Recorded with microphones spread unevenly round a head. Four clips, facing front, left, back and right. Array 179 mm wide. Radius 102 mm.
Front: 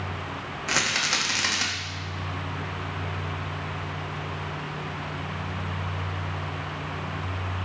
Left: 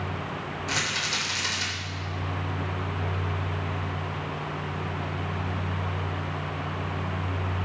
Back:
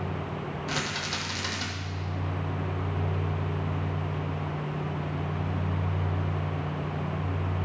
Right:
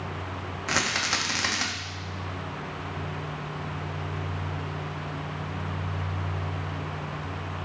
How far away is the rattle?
About 1.4 m.